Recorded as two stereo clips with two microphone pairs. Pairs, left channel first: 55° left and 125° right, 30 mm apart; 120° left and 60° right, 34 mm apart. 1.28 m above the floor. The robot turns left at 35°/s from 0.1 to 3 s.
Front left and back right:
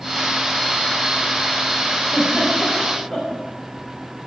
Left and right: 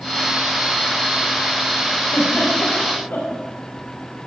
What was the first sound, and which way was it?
A giggle, 165° left.